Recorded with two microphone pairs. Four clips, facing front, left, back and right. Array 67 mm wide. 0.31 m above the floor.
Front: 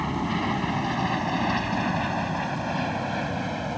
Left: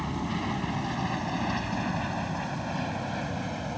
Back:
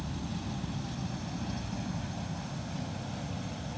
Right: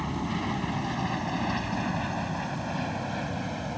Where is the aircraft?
Straight ahead; by 3.8 s 5° left.